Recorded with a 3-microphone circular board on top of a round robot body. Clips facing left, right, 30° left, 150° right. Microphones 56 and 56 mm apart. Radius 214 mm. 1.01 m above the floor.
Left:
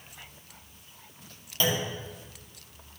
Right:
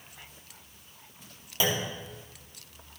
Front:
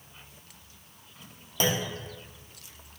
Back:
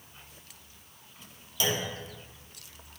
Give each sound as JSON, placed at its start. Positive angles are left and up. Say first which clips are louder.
{"t": 1.6, "sound": "a clunk", "louder": "left 1 dB, front 2 dB", "azimuth_deg": -15, "distance_m": 1.5}